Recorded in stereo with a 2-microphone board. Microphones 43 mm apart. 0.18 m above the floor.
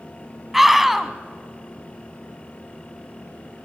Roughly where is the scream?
Centre.